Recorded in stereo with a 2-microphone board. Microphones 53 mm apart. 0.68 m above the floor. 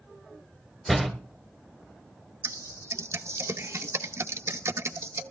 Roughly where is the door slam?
Centre.